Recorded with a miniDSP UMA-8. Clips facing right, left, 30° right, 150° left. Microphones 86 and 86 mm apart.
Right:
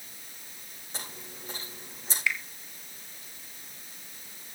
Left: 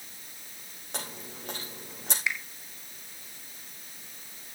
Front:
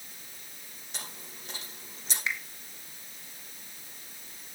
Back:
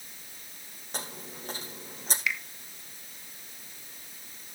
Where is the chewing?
105° left, 5.5 m.